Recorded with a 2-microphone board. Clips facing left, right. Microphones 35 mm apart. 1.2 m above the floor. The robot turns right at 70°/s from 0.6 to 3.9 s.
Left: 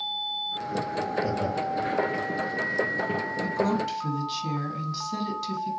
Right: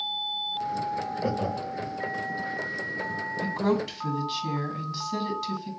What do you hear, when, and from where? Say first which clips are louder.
1.2 s laughter: left 1 dB; 70° right (ahead or behind), 1.3 m; by 1.9 s 20° right (ahead or behind), 1.3 m
3.4 s a woman speaking: right 1 dB; 35° right, 1.8 m; by 5.7 s straight ahead, 1.8 m